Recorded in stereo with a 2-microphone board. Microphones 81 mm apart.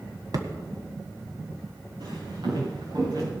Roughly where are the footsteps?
Right.